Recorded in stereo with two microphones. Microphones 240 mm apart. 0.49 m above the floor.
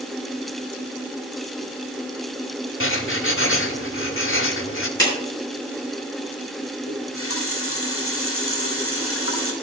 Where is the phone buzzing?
No phone buzzing in this recording.